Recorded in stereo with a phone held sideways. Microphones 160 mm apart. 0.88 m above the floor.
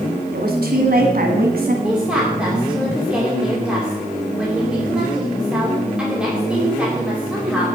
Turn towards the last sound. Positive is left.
turn(degrees=-5)  # may be behind; listen again after turning